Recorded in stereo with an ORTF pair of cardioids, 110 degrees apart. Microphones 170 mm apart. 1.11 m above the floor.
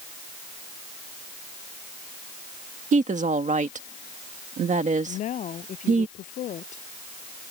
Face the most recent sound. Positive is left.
turn(degrees=50)